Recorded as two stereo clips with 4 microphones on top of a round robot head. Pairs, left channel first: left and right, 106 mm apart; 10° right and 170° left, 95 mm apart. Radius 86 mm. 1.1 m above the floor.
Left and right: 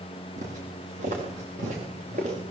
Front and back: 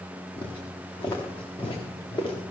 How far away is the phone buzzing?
I don't hear a phone buzzing.